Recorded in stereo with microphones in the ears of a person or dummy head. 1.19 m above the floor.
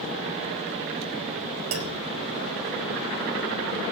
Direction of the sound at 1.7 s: 75° right (ahead or behind).